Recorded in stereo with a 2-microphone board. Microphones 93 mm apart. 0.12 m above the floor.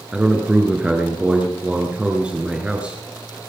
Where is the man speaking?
10° right (ahead or behind), 2 m.